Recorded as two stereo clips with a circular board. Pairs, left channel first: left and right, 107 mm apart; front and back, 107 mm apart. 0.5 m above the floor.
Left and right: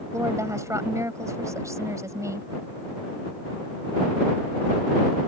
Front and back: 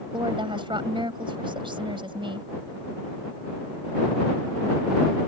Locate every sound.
0.1 s a woman speaking: 150° right